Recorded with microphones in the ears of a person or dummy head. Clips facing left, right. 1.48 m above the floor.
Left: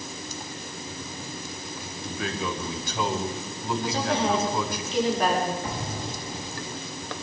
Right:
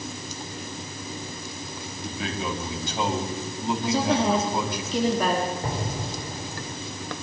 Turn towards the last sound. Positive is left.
turn(degrees=-35)  # may be behind; listen again after turning